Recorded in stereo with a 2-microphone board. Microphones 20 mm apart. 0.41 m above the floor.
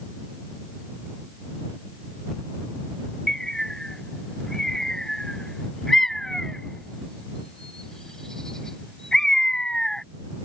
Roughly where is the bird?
Left.